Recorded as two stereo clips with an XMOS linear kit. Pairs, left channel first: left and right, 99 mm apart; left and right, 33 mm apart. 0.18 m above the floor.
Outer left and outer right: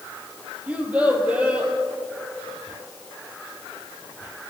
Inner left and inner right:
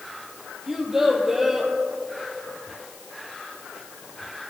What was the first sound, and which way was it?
A child speaking, 15° right (ahead or behind).